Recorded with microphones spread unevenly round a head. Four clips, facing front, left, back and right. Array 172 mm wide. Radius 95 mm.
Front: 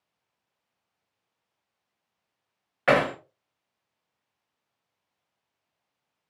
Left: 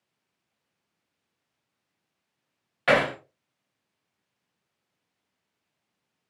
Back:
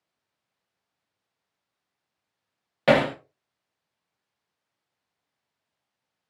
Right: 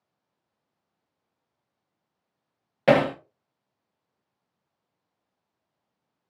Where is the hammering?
125° right, 0.6 m.